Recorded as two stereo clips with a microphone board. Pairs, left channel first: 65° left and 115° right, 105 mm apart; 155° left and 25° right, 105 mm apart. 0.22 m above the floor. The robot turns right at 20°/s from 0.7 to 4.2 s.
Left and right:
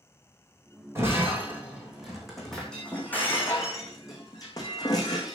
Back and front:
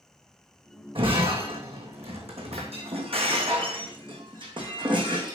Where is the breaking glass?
50° right, 3 m; by 5.4 s 15° left, 3 m.